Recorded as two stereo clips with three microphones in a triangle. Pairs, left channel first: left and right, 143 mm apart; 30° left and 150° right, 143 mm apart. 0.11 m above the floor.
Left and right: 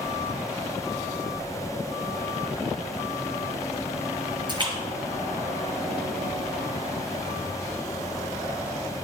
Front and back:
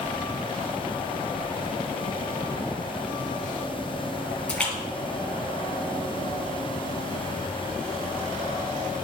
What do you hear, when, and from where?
4.5 s a splash: 50° right, 1.8 m